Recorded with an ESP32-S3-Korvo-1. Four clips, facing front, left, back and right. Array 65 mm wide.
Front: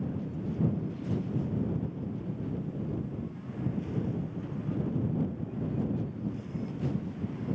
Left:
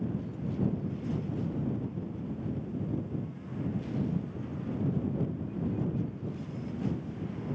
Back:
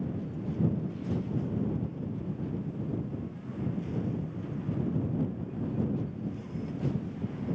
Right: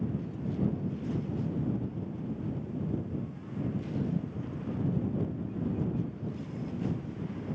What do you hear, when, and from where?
Only background noise.